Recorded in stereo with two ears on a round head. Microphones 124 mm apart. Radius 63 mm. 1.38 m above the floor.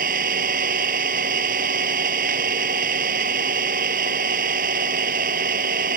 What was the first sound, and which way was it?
An engine running, 70° right (ahead or behind).